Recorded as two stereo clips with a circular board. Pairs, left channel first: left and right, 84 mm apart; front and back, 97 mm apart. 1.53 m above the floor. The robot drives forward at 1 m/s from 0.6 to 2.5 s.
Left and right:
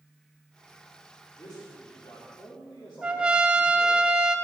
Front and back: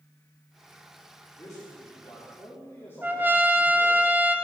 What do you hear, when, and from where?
1.4 s a man speaking: 50° left, 3.5 m; by 4.0 s 65° left, 3 m
3.0 s a trumpet: 150° right, 0.7 m